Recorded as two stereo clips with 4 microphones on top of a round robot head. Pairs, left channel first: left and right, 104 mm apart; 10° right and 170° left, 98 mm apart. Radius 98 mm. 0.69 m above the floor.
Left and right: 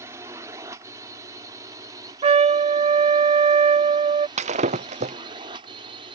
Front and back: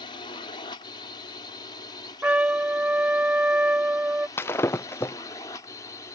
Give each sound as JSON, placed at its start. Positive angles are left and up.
{"t": 0.0, "sound": "a drone", "azimuth_deg": -30}
{"t": 2.2, "sound": "a trumpet", "azimuth_deg": -110}
{"t": 4.4, "sound": "breaking glass", "azimuth_deg": -80}